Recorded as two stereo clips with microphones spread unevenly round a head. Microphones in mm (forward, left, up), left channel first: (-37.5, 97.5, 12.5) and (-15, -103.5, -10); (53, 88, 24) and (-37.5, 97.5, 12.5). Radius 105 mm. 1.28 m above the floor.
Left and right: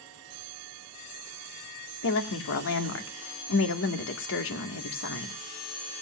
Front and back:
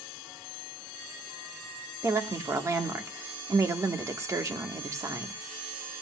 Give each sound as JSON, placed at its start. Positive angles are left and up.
{"t": 2.0, "sound": "a woman speaking", "azimuth_deg": 120, "distance_m": 1.8}